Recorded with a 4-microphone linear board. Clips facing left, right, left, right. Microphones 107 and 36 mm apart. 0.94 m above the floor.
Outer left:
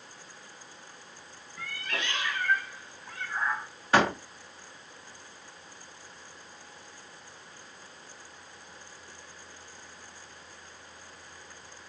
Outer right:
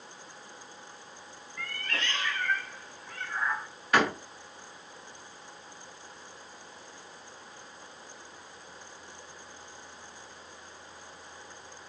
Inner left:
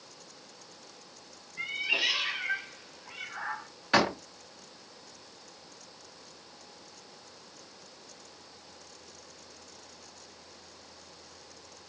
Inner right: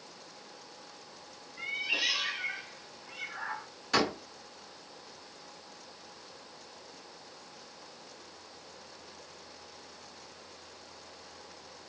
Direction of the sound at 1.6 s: 15° left (ahead or behind).